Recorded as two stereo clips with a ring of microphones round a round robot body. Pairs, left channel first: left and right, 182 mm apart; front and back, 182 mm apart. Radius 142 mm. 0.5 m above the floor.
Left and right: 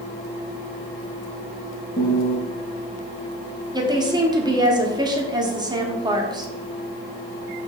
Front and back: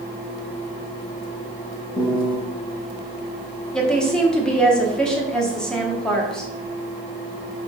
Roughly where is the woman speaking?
Right.